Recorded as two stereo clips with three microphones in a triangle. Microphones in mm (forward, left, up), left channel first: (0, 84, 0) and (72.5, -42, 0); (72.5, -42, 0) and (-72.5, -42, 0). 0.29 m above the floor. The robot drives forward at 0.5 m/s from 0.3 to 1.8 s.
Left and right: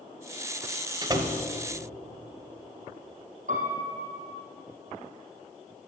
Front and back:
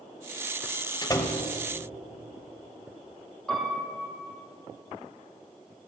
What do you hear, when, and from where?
1.0 s a door slam: 30° right, 0.9 m; by 1.4 s 45° right, 0.8 m
3.5 s a piano: 85° right, 2.5 m